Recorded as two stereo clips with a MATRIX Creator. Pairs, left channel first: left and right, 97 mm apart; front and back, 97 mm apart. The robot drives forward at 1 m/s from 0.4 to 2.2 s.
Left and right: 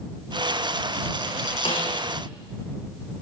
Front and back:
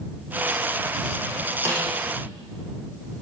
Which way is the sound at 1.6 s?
120° left.